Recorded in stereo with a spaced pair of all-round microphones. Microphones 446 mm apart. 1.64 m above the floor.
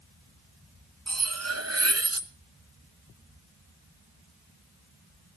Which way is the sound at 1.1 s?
35° right (ahead or behind).